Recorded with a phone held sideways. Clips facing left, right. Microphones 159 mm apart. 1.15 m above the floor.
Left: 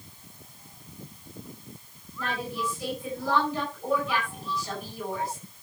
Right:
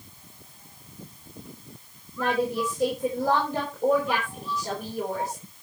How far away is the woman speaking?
About 4.5 m.